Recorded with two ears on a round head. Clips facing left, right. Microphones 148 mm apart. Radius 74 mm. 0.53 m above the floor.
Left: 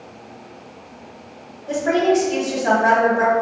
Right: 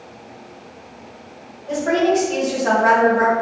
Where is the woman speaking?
15° left (ahead or behind), 1.7 m.